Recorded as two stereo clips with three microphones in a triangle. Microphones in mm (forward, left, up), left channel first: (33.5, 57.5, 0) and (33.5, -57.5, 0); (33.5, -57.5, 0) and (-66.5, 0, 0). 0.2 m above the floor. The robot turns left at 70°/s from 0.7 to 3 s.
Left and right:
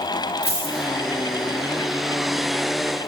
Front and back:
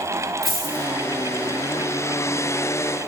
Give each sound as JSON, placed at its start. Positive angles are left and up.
{"t": 0.4, "sound": "a dropped coin", "azimuth_deg": -120, "distance_m": 1.7}